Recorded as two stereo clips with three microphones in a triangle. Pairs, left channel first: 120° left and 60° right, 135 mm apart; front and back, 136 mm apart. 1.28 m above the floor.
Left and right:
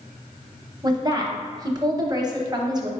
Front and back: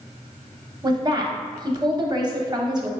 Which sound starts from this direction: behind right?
A woman speaking, at 0.8 s.